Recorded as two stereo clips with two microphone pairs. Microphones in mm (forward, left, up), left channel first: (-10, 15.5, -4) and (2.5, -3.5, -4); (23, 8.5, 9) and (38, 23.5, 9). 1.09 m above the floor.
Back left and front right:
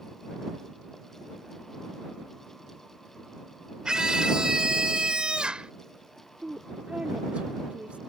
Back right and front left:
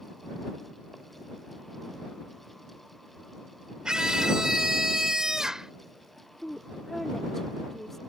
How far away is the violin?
No violin in this recording.